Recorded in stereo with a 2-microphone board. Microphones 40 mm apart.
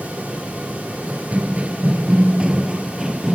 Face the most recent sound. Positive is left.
turn(degrees=-15)  # may be behind; listen again after turning